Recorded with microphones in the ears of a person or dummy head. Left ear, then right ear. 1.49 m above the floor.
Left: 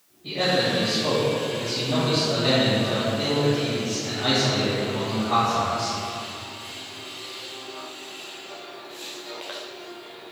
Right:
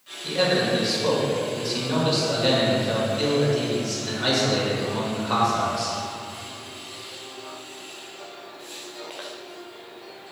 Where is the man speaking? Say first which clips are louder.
Right 1 dB; 60° right (ahead or behind), 1.7 m.